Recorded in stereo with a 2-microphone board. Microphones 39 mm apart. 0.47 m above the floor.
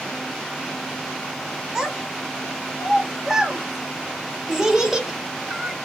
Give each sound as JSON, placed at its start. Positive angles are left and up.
{"t": 1.8, "sound": "a child speaking", "side_deg": -10, "distance_m": 0.9}